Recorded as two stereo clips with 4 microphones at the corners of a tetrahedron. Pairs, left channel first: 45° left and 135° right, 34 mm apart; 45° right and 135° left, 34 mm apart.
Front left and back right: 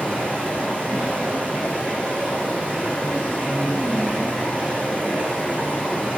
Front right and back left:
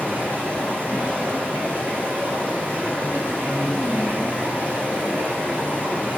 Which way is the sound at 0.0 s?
165° left.